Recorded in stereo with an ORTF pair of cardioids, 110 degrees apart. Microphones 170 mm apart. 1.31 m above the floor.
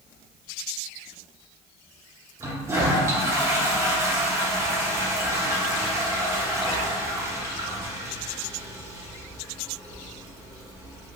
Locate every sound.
2.4 s a toilet flushing: 15° right, 0.8 m